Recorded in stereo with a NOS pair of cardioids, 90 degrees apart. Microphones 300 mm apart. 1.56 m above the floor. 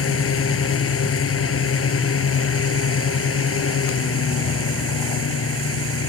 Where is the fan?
50° left.